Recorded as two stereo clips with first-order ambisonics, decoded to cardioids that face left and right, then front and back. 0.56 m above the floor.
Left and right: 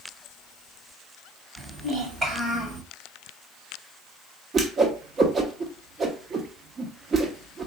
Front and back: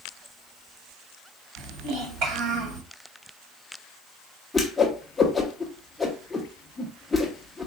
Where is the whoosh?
75° right, 0.8 m.